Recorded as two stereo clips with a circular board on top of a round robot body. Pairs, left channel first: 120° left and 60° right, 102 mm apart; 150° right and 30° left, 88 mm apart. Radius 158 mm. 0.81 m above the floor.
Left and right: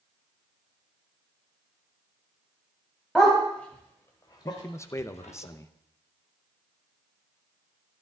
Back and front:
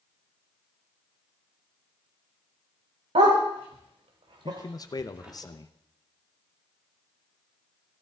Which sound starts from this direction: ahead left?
A dog barking, at 3.1 s.